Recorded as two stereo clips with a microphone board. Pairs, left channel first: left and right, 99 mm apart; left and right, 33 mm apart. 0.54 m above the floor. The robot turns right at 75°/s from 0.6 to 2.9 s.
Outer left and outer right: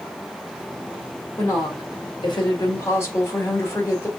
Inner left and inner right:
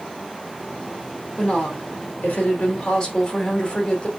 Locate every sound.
1.4 s a woman speaking: 30° left, 1.8 m; by 4.1 s 145° left, 1.8 m